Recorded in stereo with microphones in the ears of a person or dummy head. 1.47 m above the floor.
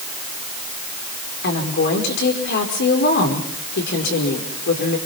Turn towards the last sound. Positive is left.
turn(degrees=55)  # may be behind; listen again after turning